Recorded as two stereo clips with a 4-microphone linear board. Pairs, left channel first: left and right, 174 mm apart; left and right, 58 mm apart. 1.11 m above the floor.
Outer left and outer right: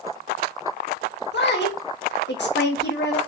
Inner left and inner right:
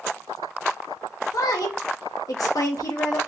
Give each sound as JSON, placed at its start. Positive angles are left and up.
{"t": 1.3, "sound": "a woman speaking", "side_deg": 85, "distance_m": 1.5}